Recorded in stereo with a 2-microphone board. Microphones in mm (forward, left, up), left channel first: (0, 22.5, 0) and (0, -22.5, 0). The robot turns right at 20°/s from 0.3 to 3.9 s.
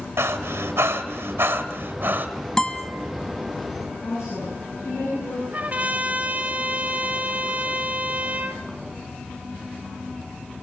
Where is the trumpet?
35° right (ahead or behind), 2 m.